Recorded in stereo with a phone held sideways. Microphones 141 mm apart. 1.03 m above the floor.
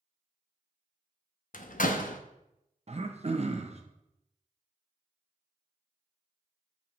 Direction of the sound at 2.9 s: 50° right (ahead or behind).